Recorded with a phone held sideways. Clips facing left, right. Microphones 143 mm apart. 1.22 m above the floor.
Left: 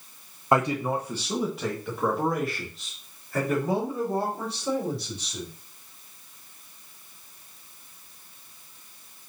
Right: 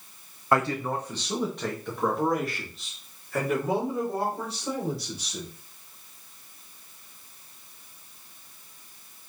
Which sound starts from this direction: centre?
A man speaking, at 0.5 s.